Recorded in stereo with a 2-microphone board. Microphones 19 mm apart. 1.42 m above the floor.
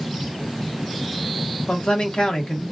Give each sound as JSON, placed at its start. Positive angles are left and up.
{"t": 1.7, "sound": "a man speaking", "side_deg": 75, "distance_m": 1.3}